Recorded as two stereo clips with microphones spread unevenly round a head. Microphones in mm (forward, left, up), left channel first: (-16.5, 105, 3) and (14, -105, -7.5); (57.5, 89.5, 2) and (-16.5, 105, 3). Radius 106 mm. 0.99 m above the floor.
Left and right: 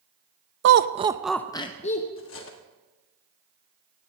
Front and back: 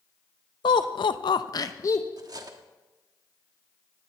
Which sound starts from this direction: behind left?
Cutlery clinking, at 2.2 s.